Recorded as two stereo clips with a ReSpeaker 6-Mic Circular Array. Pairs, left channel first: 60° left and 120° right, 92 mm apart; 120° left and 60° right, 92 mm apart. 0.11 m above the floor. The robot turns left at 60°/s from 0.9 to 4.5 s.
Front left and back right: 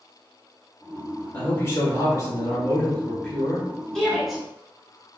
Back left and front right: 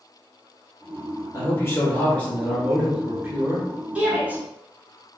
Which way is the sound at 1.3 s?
110° left.